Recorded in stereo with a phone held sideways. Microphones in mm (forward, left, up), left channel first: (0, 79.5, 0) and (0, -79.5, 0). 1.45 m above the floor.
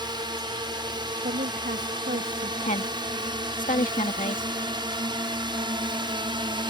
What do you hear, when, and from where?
0.0 s a drone: 25° right (ahead or behind); by 6.7 s 30° right (ahead or behind)
1.2 s a woman speaking: 75° right (ahead or behind)
2.6 s a woman speaking: 50° left (ahead or behind)